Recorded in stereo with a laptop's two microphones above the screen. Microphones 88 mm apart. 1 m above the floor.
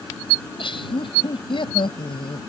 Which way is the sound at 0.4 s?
80° left.